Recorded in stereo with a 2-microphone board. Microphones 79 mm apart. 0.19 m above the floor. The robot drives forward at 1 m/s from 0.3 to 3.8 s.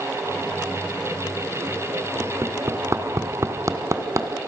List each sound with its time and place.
2.2 s hammering: 30° right (ahead or behind), 2.0 m; by 4.3 s 40° right (ahead or behind), 1.6 m